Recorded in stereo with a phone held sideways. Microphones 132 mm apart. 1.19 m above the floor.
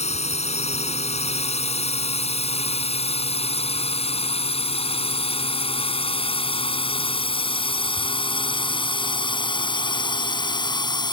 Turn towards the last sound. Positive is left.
turn(degrees=35)  # may be behind; listen again after turning